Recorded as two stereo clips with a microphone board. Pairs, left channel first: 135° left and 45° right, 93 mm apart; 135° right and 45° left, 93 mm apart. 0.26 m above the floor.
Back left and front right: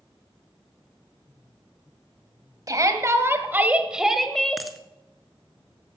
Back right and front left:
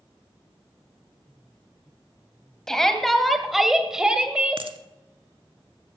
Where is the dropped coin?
45° left, 0.9 m.